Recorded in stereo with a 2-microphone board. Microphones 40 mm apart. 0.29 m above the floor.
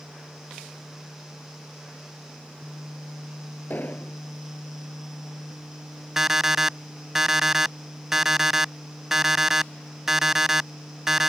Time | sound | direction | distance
3.7 | an explosion | 55° left (ahead or behind) | ?
6.2 | an alarm clock | 10° right (ahead or behind) | ?